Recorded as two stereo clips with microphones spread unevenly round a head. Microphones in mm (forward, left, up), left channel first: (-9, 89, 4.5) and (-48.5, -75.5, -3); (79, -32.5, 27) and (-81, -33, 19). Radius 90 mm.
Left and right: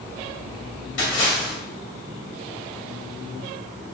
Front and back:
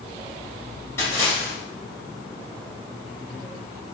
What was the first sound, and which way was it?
A splash, 75° left.